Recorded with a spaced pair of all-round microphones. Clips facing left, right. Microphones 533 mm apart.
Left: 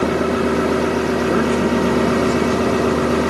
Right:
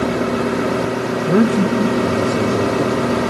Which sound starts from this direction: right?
A man speaking, at 1.3 s.